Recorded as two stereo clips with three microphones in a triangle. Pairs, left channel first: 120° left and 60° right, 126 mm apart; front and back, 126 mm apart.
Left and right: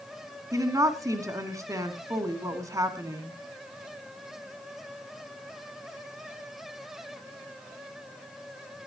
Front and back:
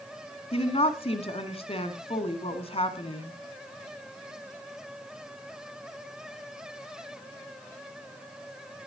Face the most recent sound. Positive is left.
turn(degrees=-5)